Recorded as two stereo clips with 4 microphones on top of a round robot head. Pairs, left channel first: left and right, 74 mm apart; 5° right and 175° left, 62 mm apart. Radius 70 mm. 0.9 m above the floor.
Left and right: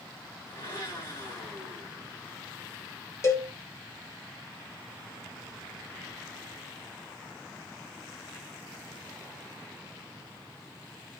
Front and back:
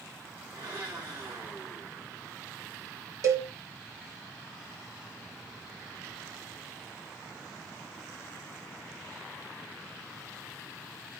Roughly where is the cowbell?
Behind left.